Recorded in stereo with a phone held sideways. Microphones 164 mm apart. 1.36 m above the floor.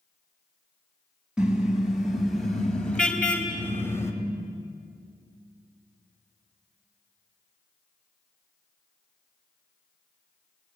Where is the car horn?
5° right (ahead or behind), 4.5 m; by 4.1 s 15° left (ahead or behind), 3 m.